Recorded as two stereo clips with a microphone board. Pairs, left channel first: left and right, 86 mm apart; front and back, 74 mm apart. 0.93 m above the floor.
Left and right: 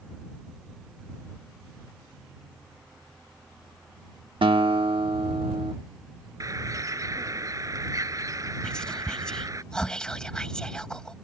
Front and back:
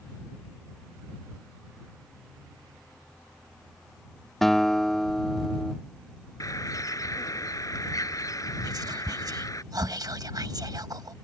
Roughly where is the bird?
Ahead right.